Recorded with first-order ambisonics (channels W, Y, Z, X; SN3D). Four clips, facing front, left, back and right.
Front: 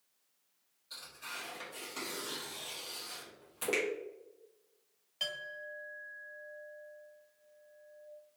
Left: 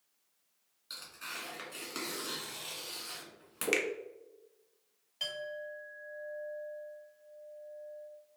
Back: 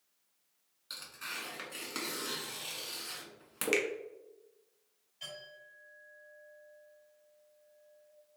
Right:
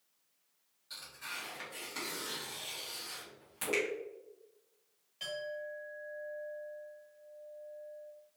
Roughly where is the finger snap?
Behind left.